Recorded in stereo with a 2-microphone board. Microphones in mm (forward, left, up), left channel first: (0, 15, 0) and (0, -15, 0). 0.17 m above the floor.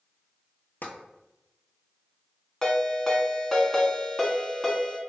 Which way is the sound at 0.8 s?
80° left.